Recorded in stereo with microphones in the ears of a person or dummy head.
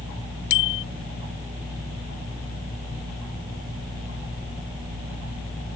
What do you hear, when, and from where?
0.5 s a bicycle bell: 65° left (ahead or behind)